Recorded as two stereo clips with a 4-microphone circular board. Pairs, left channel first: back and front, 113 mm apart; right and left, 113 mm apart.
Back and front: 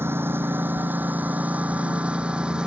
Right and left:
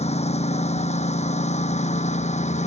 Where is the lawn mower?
70° right; by 2.7 s 85° right.